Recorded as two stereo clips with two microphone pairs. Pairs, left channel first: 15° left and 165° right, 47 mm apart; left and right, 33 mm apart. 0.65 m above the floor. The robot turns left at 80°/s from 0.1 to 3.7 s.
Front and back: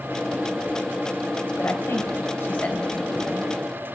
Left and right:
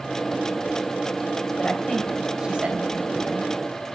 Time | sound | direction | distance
1.6 | a woman speaking | 40° left | 3.5 m